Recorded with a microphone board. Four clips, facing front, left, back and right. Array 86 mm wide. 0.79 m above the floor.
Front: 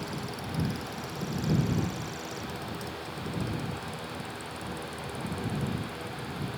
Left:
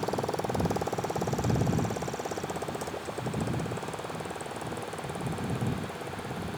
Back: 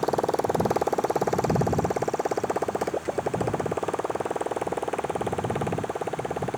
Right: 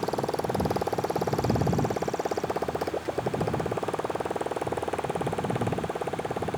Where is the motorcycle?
175° right; by 6.6 s 150° right.